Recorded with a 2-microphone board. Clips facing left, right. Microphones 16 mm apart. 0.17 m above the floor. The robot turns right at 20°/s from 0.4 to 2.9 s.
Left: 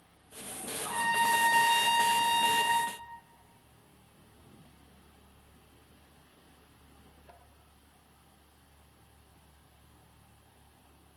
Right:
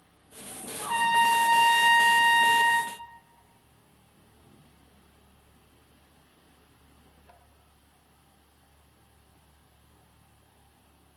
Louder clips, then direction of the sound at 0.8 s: Right 6 dB; 110° right.